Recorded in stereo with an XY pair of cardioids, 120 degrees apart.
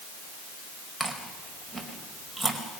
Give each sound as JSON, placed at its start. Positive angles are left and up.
{"t": 1.0, "sound": "chewing", "azimuth_deg": 5, "distance_m": 4.5}